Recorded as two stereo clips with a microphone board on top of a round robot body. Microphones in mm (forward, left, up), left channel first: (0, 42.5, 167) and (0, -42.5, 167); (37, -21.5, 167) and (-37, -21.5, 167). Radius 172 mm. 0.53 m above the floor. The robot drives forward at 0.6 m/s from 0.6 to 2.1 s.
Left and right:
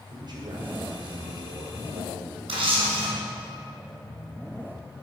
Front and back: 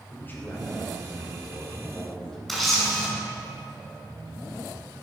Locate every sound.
0.1 s a man speaking: 60° right, 3 m; by 2.4 s 80° right, 2.5 m
2.5 s a camera shutter: 90° right, 2 m